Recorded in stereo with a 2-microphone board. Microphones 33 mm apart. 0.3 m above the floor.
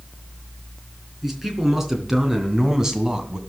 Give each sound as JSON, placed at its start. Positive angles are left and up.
{"t": 1.2, "sound": "a man speaking", "side_deg": -5, "distance_m": 3.5}